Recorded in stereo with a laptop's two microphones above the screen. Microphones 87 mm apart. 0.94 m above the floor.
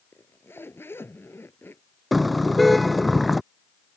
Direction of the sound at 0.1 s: 25° left (ahead or behind).